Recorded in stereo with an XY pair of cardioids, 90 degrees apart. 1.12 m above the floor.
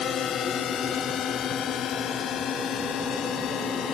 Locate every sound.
0.0 s a drone: 65° left; by 4.0 s 75° left